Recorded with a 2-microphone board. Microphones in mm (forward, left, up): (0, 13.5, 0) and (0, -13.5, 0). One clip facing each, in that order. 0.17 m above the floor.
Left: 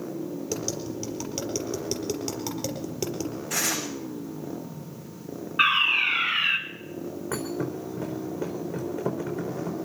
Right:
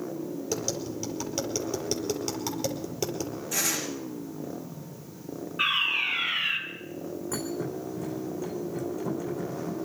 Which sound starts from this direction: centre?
Tapping, at 0.5 s.